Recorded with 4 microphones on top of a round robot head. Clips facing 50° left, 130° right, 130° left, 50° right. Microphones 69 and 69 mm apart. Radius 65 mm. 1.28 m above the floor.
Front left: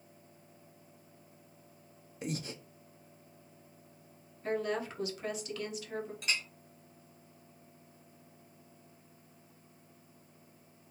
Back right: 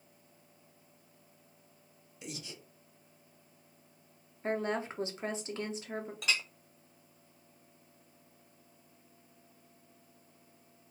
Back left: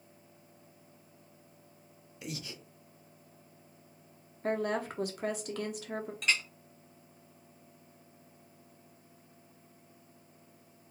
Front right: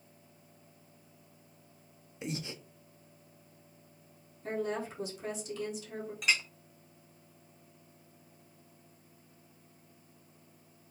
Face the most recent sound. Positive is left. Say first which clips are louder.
# back right 5 dB, front right 1 dB
turn(degrees=-135)